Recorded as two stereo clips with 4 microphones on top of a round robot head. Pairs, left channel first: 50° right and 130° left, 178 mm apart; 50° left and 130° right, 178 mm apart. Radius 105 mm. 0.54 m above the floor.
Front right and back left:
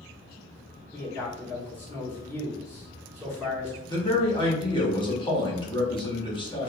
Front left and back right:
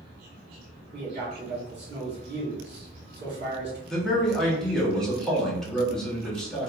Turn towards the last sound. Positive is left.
turn(degrees=-35)